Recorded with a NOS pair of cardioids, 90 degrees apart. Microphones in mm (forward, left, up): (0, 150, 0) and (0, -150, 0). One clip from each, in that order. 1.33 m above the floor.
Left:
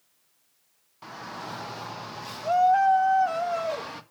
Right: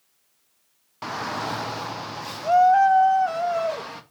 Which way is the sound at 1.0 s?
55° right.